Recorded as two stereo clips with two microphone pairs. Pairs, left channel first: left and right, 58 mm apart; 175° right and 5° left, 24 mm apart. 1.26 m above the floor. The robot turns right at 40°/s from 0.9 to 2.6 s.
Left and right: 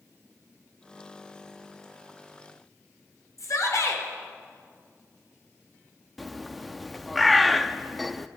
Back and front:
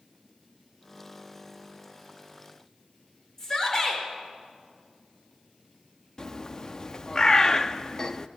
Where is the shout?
115° left, 5 m.